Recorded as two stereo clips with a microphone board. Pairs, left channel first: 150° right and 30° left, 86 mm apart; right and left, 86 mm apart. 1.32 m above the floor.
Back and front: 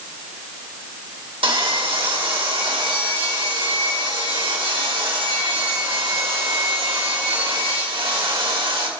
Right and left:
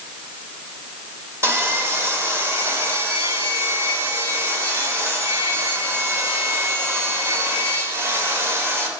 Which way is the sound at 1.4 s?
30° left.